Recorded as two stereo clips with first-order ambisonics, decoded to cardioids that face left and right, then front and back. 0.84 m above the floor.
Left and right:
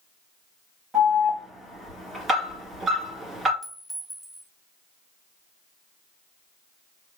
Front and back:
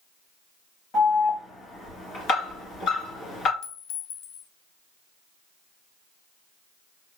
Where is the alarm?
25° right, 1.8 m.